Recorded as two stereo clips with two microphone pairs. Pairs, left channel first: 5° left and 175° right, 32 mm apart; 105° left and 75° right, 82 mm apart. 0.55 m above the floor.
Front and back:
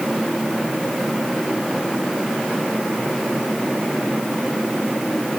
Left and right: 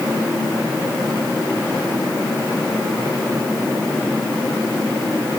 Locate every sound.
Only background noise.